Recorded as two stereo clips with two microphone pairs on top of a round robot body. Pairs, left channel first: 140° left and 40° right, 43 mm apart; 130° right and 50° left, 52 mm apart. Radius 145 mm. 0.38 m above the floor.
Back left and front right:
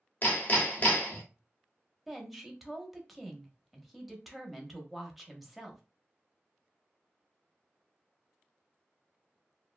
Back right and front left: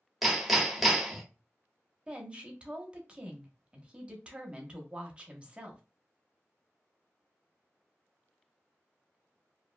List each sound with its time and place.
0.2 s hammering: 150° left, 1.0 m
2.1 s a woman speaking: 5° left, 1.0 m